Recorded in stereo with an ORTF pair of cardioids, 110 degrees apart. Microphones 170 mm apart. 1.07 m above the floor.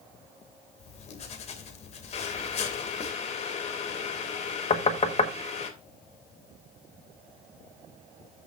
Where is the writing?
45° left, 2 m.